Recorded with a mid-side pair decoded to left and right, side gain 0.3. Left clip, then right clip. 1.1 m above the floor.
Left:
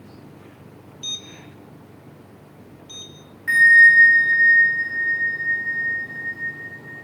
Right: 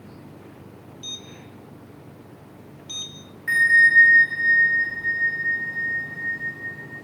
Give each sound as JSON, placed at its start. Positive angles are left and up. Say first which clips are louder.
{"t": 3.5, "sound": "a bell", "louder": "left 4 dB", "azimuth_deg": 10, "distance_m": 1.7}